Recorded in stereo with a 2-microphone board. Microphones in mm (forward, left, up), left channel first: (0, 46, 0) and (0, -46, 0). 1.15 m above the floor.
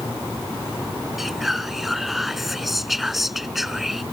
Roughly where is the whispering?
Centre.